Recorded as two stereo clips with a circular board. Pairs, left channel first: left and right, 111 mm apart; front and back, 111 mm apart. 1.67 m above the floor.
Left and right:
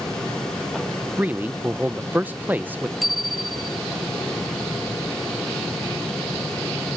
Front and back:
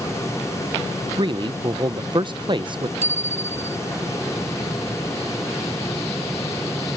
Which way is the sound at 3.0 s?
Straight behind.